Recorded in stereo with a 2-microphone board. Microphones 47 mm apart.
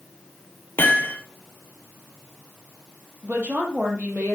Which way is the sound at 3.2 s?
35° right (ahead or behind).